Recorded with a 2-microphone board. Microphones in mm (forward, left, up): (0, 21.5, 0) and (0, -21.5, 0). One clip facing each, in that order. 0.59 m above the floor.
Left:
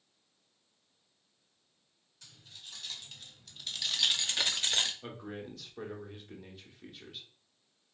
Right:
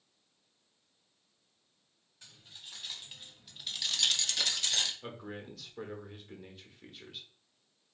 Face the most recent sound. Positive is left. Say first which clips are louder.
# left 1 dB
turn(degrees=0)  # may be behind; listen again after turning